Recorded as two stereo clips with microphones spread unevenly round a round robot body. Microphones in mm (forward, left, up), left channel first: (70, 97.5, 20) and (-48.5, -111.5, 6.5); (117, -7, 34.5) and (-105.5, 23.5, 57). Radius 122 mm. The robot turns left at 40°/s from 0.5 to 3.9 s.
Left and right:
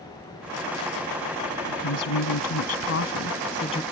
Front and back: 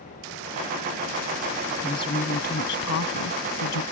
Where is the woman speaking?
75° left; by 3.8 s 10° right.